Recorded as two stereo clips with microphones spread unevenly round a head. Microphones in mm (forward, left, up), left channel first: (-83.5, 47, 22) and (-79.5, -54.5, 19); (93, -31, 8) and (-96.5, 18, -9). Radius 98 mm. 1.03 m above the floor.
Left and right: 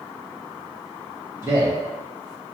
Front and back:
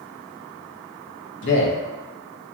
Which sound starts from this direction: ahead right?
A man speaking, at 1.4 s.